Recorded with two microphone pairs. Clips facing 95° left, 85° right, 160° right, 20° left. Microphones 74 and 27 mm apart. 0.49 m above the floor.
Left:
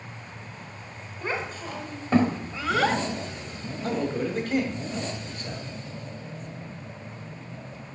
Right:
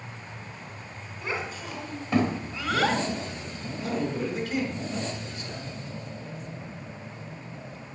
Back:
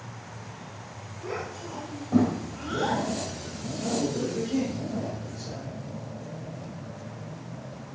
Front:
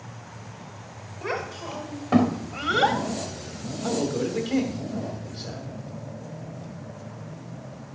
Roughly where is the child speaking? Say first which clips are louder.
Left 2 dB, front 4 dB; ahead left.